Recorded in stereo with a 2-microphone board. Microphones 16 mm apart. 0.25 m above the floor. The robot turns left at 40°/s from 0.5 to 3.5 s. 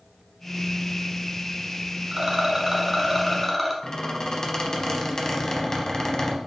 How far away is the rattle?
About 0.9 m.